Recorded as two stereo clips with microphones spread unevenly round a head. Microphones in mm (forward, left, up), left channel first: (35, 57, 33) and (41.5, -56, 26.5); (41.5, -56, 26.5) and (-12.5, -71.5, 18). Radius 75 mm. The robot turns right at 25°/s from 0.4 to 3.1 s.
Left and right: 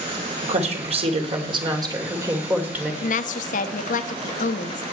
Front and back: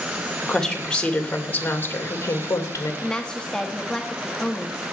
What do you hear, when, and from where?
0.4 s a woman speaking: 70° right, 3 m; by 2.9 s 5° right, 3 m
3.0 s a woman speaking: 95° left, 1.1 m; by 4.8 s 100° left, 1.1 m